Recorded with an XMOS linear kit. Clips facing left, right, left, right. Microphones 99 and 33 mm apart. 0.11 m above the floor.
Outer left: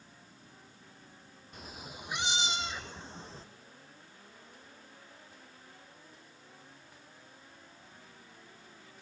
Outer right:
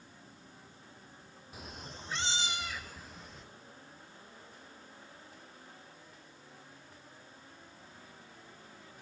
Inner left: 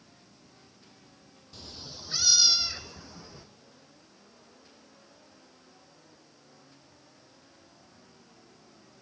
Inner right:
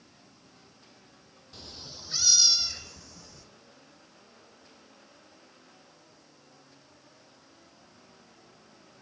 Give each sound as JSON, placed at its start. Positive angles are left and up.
{"t": 1.5, "sound": "a cat meowing", "side_deg": -5, "distance_m": 0.8}